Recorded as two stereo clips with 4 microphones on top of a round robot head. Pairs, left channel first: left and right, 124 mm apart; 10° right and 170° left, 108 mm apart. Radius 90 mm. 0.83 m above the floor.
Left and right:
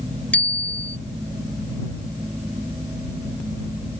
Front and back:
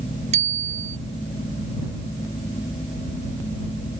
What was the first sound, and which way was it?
A bicycle bell, 170° left.